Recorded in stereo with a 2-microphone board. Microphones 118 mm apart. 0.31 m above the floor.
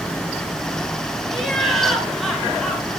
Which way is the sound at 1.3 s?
Centre (ahead or behind).